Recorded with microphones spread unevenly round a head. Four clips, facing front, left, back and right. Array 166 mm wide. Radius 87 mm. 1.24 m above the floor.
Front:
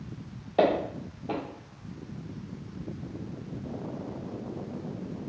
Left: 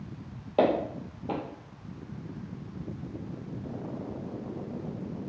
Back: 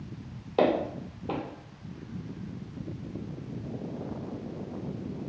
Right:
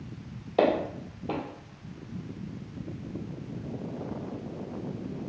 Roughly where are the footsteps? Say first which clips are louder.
Even, front 1 dB; behind left.